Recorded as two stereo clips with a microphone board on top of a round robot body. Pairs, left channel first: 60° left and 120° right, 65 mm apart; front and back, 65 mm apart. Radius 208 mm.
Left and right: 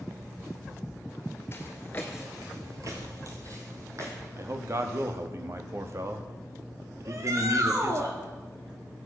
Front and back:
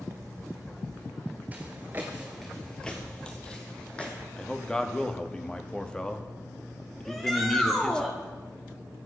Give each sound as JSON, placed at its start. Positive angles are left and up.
{"t": 1.5, "sound": "footsteps", "azimuth_deg": 115, "distance_m": 1.1}
{"t": 4.4, "sound": "a man speaking", "azimuth_deg": -75, "distance_m": 1.5}
{"t": 7.0, "sound": "a shout", "azimuth_deg": -85, "distance_m": 2.0}